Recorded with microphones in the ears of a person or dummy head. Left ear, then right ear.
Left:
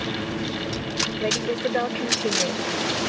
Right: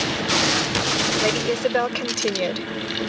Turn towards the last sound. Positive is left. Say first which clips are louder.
# right 3 dB
turn(degrees=-40)  # may be behind; listen again after turning